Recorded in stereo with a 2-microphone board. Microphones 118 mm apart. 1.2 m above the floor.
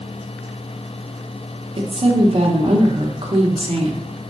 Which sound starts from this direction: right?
A woman speaking, at 1.8 s.